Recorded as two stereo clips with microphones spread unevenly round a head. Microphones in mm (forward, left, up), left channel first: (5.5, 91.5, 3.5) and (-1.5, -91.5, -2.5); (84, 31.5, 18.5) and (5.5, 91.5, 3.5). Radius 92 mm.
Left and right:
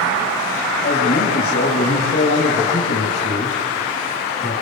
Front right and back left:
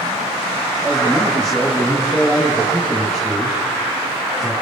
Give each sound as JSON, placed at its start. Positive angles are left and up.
{"t": 0.8, "sound": "a man speaking", "azimuth_deg": 55, "distance_m": 4.0}